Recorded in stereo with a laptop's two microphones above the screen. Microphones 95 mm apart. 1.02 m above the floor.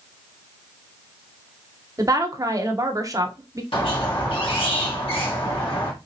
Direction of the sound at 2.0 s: 40° right (ahead or behind).